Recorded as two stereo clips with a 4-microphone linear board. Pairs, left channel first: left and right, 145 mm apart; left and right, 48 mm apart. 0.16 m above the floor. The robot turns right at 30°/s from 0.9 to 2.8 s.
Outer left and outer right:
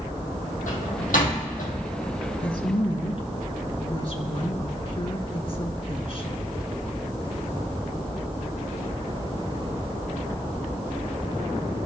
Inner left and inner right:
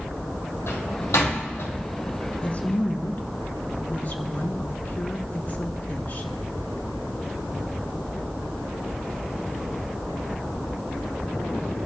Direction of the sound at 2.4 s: 35° left (ahead or behind).